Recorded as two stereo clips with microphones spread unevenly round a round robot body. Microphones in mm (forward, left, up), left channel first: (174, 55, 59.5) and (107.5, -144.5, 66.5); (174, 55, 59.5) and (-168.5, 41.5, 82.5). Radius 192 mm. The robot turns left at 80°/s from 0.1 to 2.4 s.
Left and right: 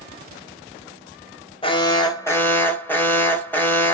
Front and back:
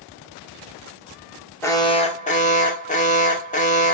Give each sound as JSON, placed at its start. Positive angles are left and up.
{"t": 1.6, "sound": "an alarm", "azimuth_deg": 70, "distance_m": 1.6}